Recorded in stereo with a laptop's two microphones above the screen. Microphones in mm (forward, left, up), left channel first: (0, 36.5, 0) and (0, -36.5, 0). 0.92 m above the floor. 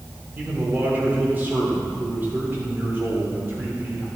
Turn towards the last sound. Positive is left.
turn(degrees=-30)  # may be behind; listen again after turning